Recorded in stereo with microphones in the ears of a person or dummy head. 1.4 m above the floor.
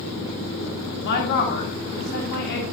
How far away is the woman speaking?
About 1.8 m.